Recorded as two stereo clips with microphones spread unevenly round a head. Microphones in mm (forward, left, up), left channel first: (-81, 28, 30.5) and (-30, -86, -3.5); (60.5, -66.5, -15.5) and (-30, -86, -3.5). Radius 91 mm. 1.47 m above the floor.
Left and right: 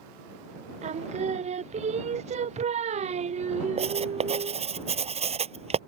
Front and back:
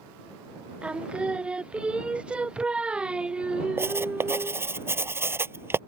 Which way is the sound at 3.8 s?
105° right.